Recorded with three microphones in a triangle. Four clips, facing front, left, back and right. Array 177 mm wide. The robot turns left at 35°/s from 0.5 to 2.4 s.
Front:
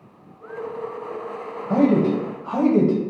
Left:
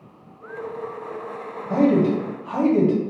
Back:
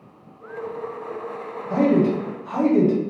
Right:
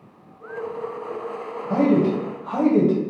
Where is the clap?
I don't hear a clap.